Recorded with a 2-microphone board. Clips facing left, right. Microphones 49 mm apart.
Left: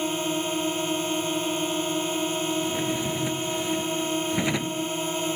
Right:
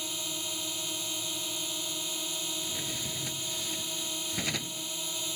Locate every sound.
0.0 s a drone: 40° left (ahead or behind)
2.6 s a drawer: 25° left (ahead or behind)